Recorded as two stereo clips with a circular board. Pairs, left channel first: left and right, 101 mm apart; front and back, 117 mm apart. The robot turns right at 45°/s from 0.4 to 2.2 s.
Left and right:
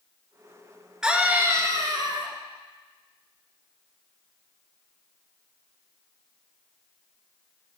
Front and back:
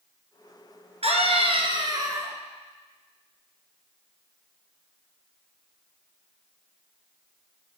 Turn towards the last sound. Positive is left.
turn(degrees=-120)